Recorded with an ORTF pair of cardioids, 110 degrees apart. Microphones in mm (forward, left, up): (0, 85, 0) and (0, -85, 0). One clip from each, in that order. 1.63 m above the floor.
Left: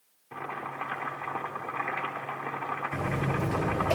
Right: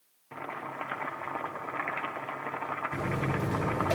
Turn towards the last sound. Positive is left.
turn(degrees=5)